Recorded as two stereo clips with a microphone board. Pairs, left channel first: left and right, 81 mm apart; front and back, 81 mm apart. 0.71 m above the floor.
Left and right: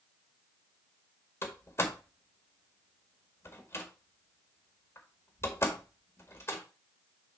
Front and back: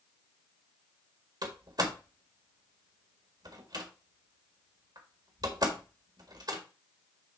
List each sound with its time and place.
1.4 s a door slam: 145° left, 1.8 m